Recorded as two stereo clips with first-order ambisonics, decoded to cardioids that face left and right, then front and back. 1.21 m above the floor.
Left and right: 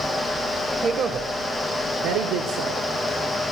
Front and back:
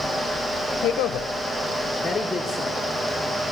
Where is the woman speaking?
25° right, 0.7 m; by 2.8 s 85° right, 1.4 m.